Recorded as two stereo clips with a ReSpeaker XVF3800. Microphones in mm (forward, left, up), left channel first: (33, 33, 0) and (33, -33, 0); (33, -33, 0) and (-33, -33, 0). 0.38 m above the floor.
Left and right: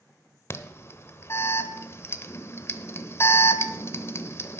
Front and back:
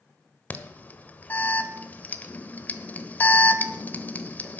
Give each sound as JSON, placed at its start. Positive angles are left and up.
{"t": 0.5, "sound": "an alarm", "azimuth_deg": 55, "distance_m": 0.8}